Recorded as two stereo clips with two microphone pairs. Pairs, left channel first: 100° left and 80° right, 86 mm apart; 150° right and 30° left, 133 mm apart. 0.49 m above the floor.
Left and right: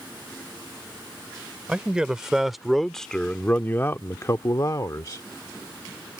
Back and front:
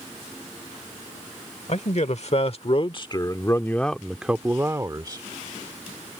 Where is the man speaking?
155° right; by 5.2 s 75° left.